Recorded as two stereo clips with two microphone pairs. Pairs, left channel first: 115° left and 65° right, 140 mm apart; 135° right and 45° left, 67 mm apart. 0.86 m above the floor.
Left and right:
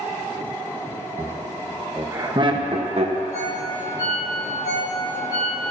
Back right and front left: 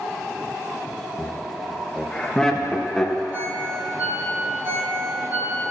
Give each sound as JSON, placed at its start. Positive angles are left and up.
{"t": 1.2, "sound": "laughter", "azimuth_deg": 175, "distance_m": 0.8}
{"t": 3.3, "sound": "a ringtone", "azimuth_deg": 100, "distance_m": 2.5}